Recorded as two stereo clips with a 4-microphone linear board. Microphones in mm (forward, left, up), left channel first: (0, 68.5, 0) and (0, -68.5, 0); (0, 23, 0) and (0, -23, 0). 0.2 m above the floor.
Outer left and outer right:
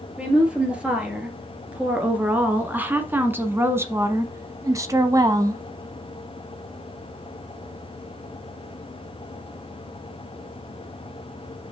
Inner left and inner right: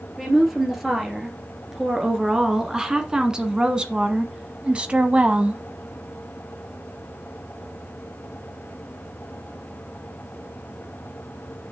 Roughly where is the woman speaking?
Centre.